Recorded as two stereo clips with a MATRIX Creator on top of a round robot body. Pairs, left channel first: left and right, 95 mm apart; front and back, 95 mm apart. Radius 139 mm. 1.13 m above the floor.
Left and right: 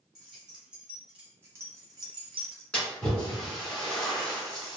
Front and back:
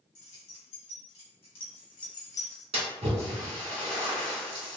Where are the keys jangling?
Straight ahead, 1.4 m; by 2.6 s 75° right, 0.5 m.